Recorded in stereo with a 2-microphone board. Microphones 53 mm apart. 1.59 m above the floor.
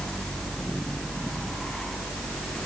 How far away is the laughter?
I don't hear laughter.